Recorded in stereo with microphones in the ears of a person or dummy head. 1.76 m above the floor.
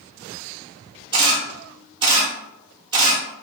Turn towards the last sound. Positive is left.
turn(degrees=-25)  # may be behind; listen again after turning